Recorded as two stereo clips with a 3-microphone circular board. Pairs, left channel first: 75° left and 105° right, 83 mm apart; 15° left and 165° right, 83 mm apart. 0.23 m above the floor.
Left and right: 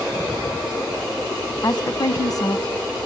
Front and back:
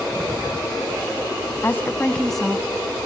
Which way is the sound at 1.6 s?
70° left.